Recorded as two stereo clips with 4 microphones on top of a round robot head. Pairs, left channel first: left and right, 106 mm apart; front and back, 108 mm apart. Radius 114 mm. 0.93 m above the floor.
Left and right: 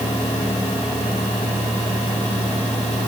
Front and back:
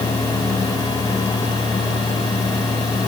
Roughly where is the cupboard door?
I don't hear a cupboard door.